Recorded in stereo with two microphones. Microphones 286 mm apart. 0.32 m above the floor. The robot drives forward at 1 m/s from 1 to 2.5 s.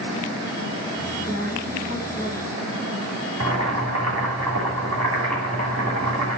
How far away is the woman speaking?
About 2 m.